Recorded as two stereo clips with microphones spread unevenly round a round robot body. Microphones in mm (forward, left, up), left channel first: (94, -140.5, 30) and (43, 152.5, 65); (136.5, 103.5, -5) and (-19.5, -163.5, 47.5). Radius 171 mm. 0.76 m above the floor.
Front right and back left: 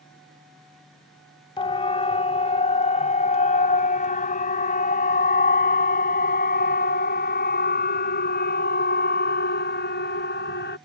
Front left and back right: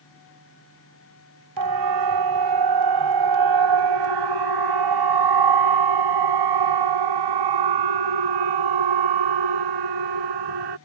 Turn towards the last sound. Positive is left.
turn(degrees=-145)